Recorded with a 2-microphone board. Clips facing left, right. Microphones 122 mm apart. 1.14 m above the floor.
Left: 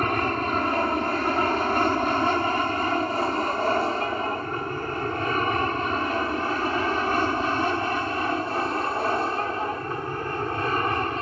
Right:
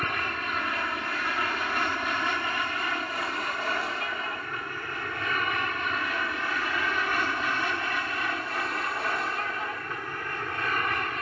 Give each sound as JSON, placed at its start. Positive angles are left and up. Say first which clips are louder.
{"t": 0.0, "sound": "an aircraft", "louder": "left 8 dB", "side_deg": 40}